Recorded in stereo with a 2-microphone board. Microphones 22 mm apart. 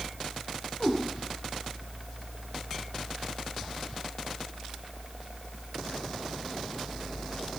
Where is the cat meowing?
15° left (ahead or behind), 4 m.